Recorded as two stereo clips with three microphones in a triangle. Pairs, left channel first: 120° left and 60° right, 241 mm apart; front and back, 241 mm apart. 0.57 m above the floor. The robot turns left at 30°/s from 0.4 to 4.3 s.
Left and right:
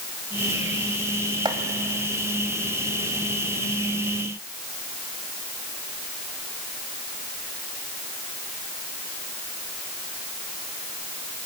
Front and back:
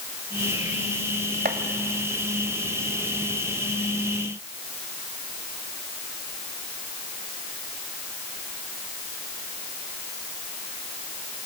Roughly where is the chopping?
Behind right.